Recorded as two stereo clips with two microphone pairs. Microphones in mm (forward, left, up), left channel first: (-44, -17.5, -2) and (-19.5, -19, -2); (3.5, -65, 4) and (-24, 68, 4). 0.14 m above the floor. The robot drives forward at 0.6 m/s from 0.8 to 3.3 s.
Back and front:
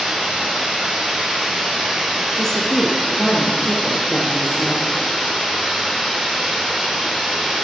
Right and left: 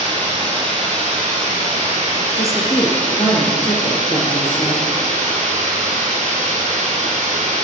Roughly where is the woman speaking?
Behind right.